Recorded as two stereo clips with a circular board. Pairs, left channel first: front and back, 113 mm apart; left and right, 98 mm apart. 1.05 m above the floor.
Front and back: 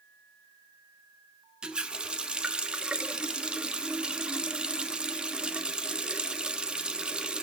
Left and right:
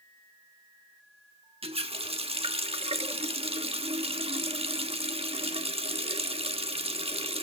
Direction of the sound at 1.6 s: 100° right.